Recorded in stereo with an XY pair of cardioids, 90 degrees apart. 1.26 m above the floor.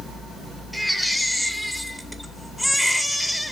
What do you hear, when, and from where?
0.7 s a baby crying: 5° left, 2.5 m